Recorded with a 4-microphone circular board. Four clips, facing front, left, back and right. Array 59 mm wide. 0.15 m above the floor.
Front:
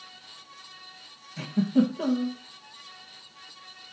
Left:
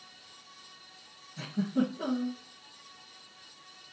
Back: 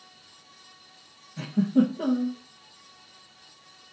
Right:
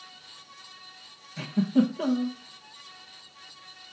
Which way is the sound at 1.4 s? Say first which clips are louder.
Right 6 dB, back 1 dB; 55° right.